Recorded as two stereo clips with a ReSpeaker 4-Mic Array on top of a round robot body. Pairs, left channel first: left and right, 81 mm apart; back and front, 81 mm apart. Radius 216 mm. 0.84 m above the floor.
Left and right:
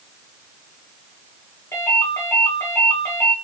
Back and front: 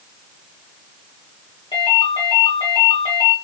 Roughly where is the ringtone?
Behind left.